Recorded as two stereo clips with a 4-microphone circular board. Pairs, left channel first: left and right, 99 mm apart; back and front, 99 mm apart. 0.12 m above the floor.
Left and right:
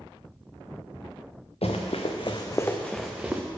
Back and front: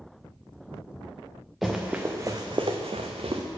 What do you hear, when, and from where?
1.6 s running footsteps: 85° left, 0.9 m; by 3.4 s 15° right, 0.9 m